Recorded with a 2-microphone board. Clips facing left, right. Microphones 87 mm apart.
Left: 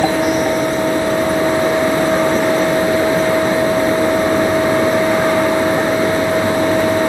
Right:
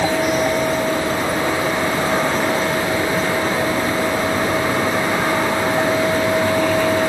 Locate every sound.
Only background noise.